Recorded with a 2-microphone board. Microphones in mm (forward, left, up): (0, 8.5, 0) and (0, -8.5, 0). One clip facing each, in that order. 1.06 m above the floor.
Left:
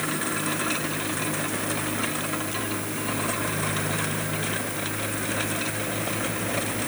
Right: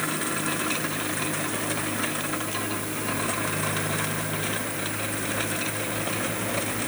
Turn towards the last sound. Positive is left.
No sound to turn to.